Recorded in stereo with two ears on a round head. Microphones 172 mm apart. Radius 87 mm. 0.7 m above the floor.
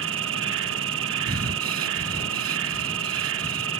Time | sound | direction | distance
0.0 | an insect | 70° right (ahead or behind) | ?
1.3 | breathing | 55° right (ahead or behind) | ?